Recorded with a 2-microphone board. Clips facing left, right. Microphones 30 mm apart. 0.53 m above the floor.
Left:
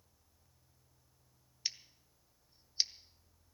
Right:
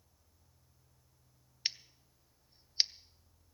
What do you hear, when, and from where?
1.6 s scissors: 30° right (ahead or behind), 0.5 m